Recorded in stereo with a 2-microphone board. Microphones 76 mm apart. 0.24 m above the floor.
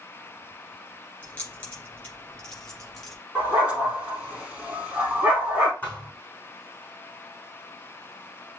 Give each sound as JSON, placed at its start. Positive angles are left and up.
{"t": 1.2, "sound": "keys jangling", "side_deg": 20, "distance_m": 2.5}
{"t": 3.4, "sound": "a dog barking", "side_deg": -15, "distance_m": 3.0}
{"t": 5.8, "sound": "a thud", "side_deg": 20, "distance_m": 3.0}